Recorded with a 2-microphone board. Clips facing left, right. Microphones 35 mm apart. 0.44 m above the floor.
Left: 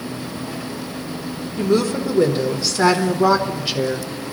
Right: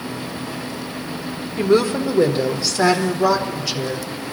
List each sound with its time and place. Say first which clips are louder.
1.6 s a woman speaking: right 2 dB; 35° right (ahead or behind), 1.5 m; by 4.1 s 45° left (ahead or behind), 1.3 m